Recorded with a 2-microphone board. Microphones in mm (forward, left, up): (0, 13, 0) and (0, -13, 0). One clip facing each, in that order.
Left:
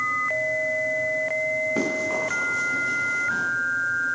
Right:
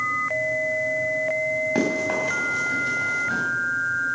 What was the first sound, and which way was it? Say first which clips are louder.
Running footsteps: right 2 dB; 65° right (ahead or behind).